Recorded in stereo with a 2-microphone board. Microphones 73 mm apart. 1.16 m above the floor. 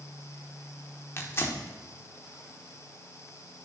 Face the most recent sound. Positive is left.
turn(degrees=35)  # may be behind; listen again after turning